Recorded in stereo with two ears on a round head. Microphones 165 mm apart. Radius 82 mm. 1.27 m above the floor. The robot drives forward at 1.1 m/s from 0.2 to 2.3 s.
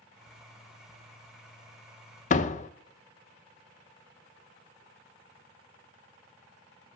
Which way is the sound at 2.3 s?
40° left (ahead or behind).